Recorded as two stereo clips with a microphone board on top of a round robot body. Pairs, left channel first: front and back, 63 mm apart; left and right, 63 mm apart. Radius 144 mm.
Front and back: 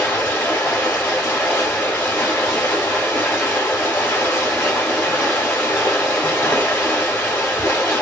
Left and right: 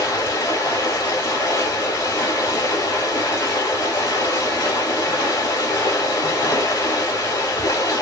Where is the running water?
65° left, 0.8 m.